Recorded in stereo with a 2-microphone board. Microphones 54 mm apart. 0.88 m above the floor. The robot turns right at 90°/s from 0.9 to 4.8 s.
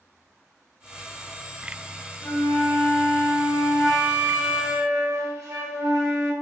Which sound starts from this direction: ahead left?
A flute, at 2.2 s.